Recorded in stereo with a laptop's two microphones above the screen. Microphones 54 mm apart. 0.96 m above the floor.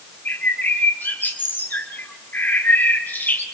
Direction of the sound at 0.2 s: 35° left (ahead or behind).